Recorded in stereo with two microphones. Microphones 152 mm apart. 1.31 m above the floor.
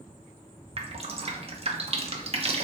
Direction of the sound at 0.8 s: 45° right (ahead or behind).